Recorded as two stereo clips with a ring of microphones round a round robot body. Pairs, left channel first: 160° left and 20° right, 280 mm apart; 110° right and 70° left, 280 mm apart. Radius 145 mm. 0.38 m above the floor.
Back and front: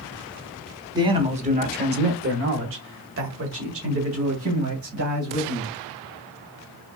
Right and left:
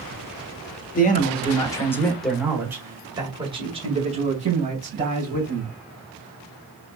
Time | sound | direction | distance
0.9 | a man speaking | 85° right | 1.4 m